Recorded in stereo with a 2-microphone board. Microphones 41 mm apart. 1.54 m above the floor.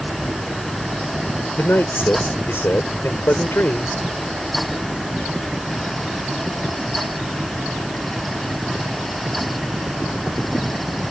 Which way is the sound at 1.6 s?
75° left (ahead or behind).